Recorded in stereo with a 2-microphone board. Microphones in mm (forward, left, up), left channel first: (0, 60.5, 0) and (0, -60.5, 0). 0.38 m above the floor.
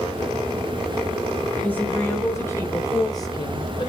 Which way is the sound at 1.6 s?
15° left (ahead or behind).